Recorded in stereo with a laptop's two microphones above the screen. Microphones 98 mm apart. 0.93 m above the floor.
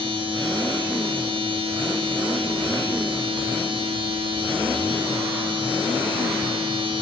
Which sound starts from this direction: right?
A machine running, at 0.0 s.